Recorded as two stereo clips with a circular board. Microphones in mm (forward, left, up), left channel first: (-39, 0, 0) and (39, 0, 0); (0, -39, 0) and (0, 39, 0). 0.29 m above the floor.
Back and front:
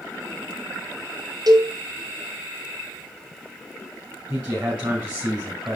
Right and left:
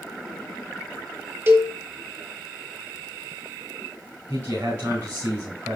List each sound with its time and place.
1.5 s a cowbell: 30° left, 1.0 m
4.3 s a man speaking: 65° left, 2.5 m